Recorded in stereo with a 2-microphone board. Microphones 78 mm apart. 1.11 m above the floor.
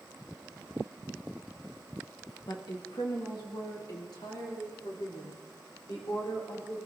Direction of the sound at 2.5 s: 75° left (ahead or behind).